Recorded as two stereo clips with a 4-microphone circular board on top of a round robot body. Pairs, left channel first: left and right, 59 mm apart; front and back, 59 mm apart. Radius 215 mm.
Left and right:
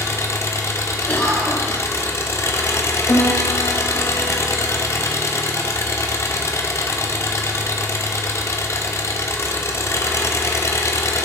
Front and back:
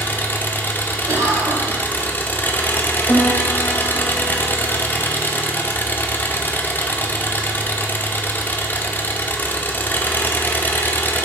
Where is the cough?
155° left, 2.5 m.